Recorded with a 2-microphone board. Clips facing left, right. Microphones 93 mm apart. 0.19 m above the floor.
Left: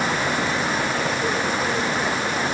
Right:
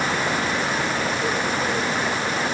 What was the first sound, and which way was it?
Only background noise.